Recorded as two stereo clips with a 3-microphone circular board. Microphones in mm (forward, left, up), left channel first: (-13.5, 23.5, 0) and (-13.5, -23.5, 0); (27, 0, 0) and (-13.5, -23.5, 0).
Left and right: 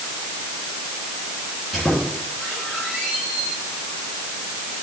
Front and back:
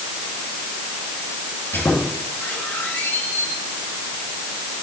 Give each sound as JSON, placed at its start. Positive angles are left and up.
{"t": 1.7, "sound": "a squeak", "azimuth_deg": 5, "distance_m": 5.0}